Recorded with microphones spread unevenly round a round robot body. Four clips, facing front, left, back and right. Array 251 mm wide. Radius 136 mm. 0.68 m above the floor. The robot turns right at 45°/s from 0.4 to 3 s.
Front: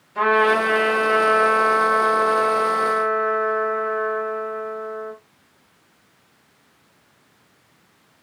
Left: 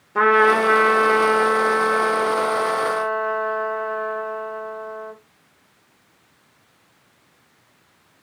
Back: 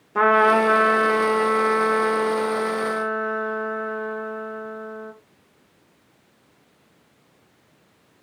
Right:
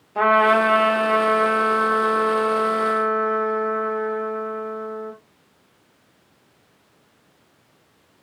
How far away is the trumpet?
About 1.7 m.